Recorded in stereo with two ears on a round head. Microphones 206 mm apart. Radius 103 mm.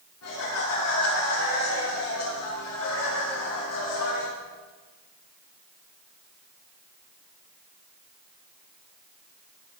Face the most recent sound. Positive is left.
turn(degrees=80)